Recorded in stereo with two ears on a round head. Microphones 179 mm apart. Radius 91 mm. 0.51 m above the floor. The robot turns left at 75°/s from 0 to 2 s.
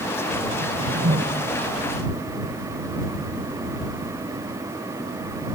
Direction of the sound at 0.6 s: 90° right.